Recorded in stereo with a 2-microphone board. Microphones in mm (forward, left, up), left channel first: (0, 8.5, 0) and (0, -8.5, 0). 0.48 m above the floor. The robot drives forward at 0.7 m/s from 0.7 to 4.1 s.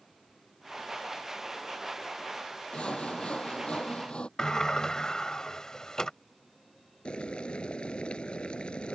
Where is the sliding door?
35° left (ahead or behind).